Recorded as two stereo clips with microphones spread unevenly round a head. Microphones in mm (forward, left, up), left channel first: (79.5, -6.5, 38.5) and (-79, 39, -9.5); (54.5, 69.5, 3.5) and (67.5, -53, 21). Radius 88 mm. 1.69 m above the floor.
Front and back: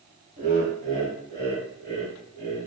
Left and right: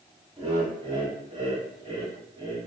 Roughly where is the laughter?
Behind right.